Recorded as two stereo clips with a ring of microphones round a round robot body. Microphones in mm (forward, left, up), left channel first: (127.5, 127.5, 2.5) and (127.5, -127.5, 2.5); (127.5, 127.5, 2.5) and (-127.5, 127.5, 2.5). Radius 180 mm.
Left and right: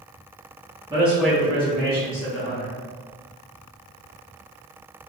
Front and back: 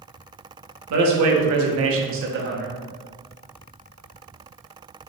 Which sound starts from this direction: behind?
A man speaking, at 0.9 s.